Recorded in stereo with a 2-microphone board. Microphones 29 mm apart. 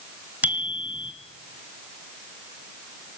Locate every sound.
0.4 s a bicycle bell: 70° right (ahead or behind), 2.5 m